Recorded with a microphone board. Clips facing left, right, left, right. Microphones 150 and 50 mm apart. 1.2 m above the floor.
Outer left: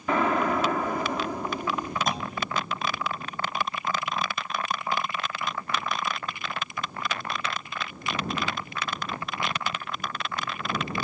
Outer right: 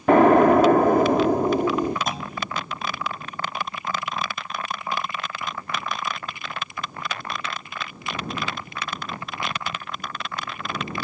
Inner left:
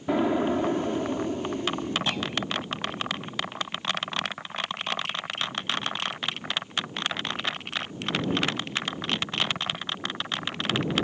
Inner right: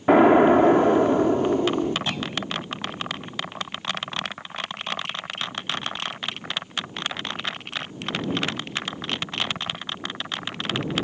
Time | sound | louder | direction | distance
0.1 | an explosion | outer right 11 dB, inner right 10 dB | 60° right (ahead or behind) | ?
2.1 | a clunk | even, even | centre (ahead or behind) | ?